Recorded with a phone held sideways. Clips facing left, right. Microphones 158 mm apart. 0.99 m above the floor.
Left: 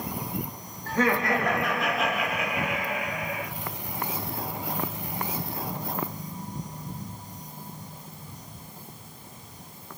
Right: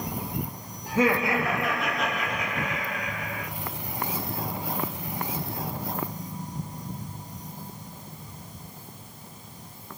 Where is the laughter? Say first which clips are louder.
Right 1 dB; 15° right (ahead or behind), 2 m; by 3.5 s 30° left (ahead or behind), 2.5 m.